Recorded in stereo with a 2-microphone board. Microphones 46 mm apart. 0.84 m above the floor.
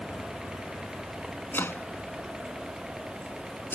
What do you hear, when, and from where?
1.5 s chopping: 50° left (ahead or behind)